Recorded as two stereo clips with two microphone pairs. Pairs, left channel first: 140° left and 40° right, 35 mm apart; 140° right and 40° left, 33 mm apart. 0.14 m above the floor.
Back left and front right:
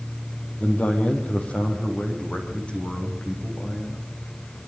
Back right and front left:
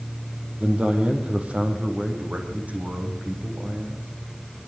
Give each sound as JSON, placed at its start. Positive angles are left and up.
{"t": 0.6, "sound": "a man speaking", "azimuth_deg": 95, "distance_m": 3.5}